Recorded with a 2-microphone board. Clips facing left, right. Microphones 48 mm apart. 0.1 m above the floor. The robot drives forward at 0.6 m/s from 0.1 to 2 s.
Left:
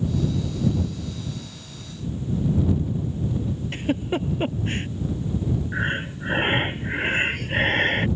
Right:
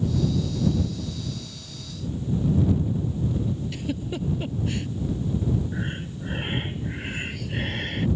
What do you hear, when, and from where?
3.7 s a giggle: 45° left (ahead or behind)
5.7 s breathing: 50° left (ahead or behind)